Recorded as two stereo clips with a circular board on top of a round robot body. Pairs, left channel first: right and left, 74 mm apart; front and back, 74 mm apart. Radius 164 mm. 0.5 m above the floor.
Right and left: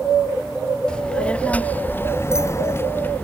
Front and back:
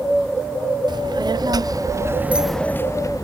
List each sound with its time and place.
0.9 s a child speaking: 170° right; by 3.2 s 25° right